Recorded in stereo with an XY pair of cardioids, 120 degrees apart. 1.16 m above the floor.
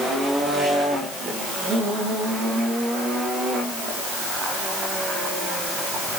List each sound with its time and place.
Only background noise.